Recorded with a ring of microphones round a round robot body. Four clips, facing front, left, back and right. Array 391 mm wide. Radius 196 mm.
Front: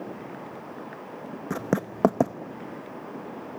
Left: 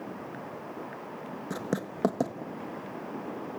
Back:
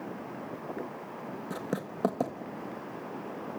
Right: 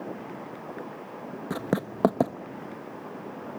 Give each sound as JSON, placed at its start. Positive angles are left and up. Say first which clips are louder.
{"t": 1.5, "sound": "writing", "louder": "right 4 dB, front 9 dB", "azimuth_deg": -30, "distance_m": 0.9}